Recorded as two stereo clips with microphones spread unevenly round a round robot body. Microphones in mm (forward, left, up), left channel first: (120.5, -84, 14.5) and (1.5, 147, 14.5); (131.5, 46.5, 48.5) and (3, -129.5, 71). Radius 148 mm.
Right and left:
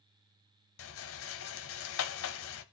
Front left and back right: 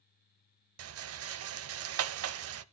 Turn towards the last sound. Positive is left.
turn(degrees=-110)